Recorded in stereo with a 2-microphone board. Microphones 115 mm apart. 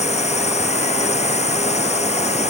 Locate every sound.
0.0 s a drone: 80° left